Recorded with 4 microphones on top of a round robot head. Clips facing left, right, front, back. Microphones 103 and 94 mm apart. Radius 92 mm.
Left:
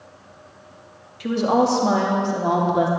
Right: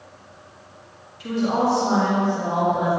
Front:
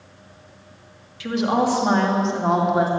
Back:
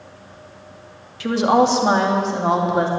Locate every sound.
1.2 s a woman speaking: 130° left, 2 m; by 2.9 s 85° left, 3 m